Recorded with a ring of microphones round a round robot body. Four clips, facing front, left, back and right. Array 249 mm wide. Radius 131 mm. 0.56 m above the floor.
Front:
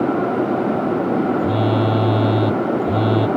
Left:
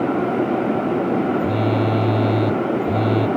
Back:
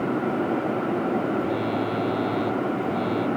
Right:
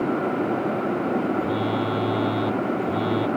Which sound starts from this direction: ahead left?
A phone buzzing, at 1.4 s.